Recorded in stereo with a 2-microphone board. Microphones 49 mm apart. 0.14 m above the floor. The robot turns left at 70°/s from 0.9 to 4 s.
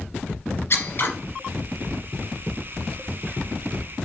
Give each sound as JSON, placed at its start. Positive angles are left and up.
{"t": 0.7, "sound": "scissors", "side_deg": 50, "distance_m": 1.7}